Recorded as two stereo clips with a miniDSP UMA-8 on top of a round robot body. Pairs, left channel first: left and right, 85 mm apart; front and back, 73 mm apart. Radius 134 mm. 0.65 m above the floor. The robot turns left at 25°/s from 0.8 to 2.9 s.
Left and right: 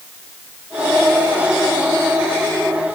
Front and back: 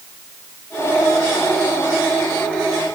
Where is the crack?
No crack in this recording.